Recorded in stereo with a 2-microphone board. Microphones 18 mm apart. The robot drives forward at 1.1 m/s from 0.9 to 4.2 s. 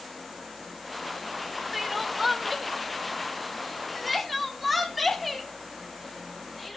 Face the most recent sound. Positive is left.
turn(degrees=-5)  # may be behind; listen again after turning